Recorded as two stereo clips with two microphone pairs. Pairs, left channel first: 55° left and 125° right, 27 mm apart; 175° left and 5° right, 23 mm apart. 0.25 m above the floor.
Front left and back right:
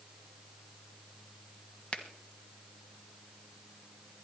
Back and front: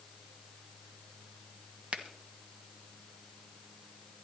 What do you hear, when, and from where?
1.9 s a finger snap: 20° left, 1.5 m